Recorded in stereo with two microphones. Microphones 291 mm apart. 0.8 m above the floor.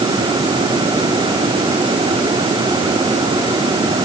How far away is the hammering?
I don't hear hammering.